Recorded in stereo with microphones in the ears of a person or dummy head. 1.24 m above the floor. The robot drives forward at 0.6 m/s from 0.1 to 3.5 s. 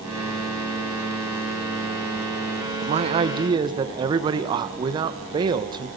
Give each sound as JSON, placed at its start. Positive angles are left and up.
{"t": 2.8, "sound": "a man speaking", "side_deg": -35, "distance_m": 0.9}